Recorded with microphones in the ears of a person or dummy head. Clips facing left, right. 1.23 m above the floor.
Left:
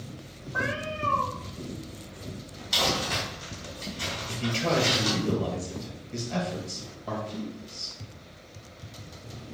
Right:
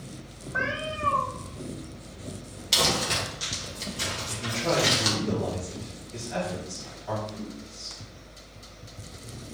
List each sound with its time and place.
0.5 s a cat meowing: 25° right (ahead or behind), 1.3 m
2.7 s crumpling: 40° right (ahead or behind), 1.1 m
4.3 s a man speaking: 45° left (ahead or behind), 2 m